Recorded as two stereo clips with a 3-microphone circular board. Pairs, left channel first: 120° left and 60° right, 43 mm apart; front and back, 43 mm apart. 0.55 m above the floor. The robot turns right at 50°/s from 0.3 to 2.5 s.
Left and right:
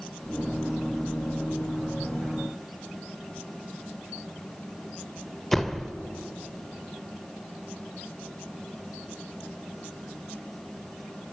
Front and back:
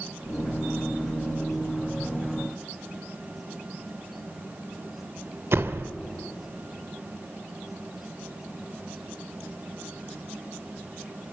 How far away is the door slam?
About 1.1 m.